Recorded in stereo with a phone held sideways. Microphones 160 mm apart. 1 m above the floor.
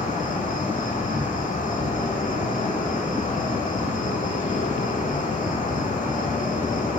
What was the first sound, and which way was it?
An insect, 50° left (ahead or behind).